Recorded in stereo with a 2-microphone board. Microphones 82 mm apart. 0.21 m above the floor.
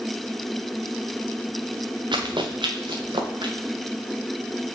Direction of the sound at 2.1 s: 75° right (ahead or behind).